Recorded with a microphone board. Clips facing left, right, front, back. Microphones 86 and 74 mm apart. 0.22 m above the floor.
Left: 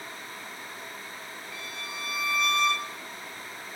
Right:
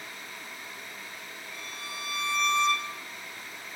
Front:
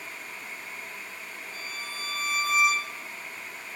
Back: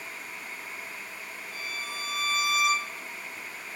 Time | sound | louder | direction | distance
1.5 | a violin | left 1 dB, back 3 dB | 170° right | 2.5 m